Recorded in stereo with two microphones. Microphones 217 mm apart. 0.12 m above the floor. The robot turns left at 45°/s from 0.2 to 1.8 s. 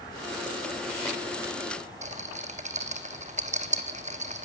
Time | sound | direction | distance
2.0 | a rattle | 35° right (ahead or behind) | 1.1 m